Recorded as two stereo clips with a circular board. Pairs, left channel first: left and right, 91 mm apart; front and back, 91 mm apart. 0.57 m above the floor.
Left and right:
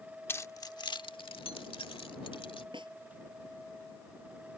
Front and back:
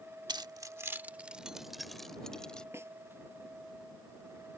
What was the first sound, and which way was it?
Keys jangling, 150° left.